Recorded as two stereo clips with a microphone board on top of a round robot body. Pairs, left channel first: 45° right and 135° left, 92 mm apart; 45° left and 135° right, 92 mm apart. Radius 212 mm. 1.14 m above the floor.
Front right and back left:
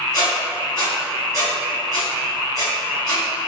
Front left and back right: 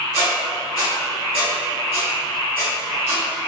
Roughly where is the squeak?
Right.